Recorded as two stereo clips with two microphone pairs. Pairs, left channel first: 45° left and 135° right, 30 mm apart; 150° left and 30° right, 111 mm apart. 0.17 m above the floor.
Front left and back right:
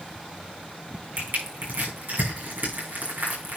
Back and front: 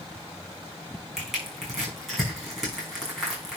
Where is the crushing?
115° right, 5.5 m.